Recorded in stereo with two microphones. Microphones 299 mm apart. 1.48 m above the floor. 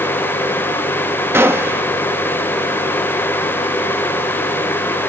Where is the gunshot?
10° right (ahead or behind).